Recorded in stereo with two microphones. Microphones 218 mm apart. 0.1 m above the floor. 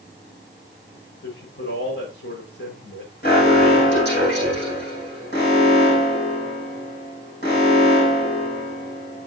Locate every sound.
1.2 s a man speaking: 60° left (ahead or behind), 8.5 m
3.2 s an alarm: 50° left (ahead or behind), 7.5 m